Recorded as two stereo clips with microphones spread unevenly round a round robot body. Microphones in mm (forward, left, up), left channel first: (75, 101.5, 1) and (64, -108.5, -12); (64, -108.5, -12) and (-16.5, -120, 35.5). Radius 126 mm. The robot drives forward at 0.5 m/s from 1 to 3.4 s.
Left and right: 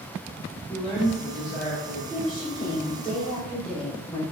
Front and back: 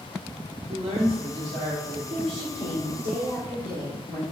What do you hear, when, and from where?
0.7 s a woman speaking: 175° left, 1.2 m
2.1 s a woman speaking: 170° left, 1.5 m; by 4.2 s 175° left, 2 m